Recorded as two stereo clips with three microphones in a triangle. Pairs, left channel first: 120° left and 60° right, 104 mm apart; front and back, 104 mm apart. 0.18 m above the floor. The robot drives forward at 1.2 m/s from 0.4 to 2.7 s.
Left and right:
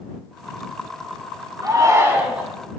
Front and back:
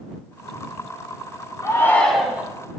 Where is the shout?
30° right, 1.2 m; by 2.5 s 125° right, 1.1 m.